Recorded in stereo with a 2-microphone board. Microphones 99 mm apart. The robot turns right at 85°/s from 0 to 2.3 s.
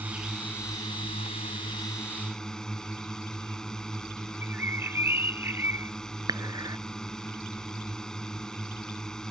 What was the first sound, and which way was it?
A drone, 20° right.